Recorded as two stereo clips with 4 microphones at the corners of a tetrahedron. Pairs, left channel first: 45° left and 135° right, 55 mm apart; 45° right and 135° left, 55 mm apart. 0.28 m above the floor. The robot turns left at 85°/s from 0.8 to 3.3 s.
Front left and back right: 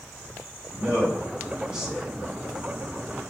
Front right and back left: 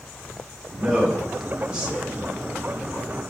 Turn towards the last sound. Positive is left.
turn(degrees=35)